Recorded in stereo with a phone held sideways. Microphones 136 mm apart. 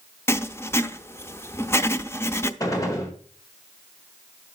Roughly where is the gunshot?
Left.